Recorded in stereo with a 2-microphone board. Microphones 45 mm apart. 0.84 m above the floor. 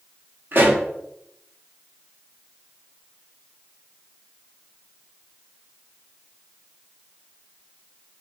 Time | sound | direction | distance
0.5 | a pop | 50° right (ahead or behind) | 0.7 m